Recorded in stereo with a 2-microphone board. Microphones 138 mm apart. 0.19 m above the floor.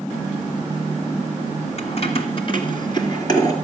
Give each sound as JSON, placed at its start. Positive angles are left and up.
{"t": 1.8, "sound": "keys jangling", "side_deg": 50, "distance_m": 1.4}